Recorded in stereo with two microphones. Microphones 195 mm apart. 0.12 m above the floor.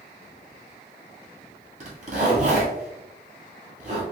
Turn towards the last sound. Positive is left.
turn(degrees=-45)  # may be behind; listen again after turning